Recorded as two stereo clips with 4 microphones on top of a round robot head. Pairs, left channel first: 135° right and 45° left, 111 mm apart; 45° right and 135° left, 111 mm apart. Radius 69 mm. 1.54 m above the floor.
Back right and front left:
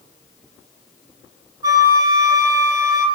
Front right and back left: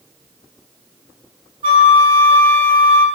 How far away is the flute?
About 1.6 m.